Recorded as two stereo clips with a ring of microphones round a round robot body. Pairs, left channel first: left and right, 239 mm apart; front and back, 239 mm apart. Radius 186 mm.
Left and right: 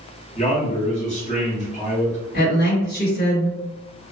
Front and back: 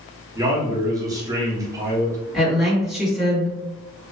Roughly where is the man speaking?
Behind left.